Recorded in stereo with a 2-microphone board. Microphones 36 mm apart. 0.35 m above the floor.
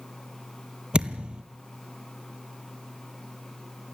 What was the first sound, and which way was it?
A thud, 25° right (ahead or behind).